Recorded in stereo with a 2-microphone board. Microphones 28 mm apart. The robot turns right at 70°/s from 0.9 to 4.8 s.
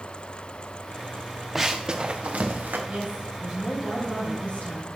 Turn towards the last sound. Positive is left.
turn(degrees=70)